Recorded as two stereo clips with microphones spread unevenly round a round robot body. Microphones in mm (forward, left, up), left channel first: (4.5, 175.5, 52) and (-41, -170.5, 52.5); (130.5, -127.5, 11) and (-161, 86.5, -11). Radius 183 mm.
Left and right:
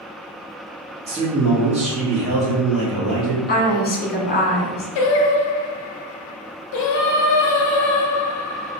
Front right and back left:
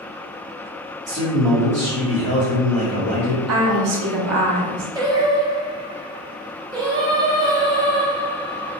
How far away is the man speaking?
About 1.4 m.